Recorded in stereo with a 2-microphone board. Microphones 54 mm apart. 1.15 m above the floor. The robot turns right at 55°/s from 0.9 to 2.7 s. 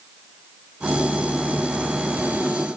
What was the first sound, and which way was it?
Only background noise.